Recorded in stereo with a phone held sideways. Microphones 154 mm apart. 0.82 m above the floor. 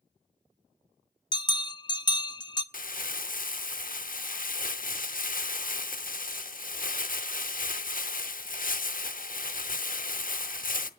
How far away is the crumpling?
About 0.8 m.